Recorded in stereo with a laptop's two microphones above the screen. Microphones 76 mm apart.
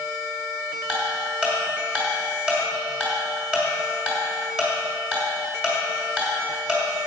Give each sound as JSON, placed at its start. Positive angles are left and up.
{"t": 0.9, "sound": "ticking", "side_deg": -15, "distance_m": 1.9}